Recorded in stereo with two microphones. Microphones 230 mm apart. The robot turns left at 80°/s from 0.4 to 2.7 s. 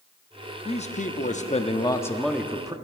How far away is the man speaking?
About 0.7 m.